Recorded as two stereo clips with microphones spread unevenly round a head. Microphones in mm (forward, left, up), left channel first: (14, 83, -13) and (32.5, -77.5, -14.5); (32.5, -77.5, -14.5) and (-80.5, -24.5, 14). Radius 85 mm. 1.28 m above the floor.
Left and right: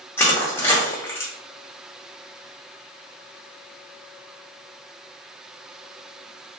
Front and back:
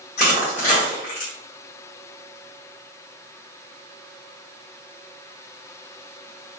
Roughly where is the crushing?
Ahead left.